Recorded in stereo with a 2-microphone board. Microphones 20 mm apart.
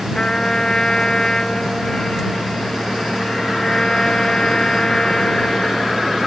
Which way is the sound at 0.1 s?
50° left (ahead or behind).